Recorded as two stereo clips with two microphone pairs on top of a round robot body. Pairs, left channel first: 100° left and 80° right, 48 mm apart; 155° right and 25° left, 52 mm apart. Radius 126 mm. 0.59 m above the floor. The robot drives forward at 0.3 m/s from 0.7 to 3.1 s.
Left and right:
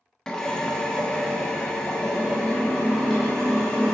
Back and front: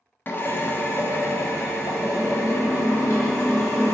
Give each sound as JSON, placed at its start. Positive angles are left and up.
{"t": 0.3, "sound": "a drill", "azimuth_deg": 180, "distance_m": 0.7}